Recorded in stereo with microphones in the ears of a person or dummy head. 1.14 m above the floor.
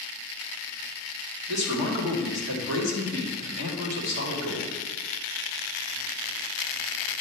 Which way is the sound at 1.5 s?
65° right (ahead or behind).